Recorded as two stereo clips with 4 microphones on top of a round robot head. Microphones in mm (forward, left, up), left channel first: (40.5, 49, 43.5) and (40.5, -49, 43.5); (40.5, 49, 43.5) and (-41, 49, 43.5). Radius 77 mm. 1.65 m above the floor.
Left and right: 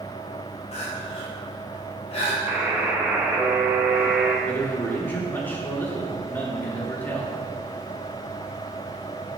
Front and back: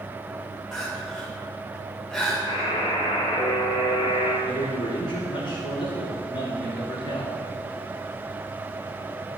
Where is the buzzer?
20° right, 4.5 m.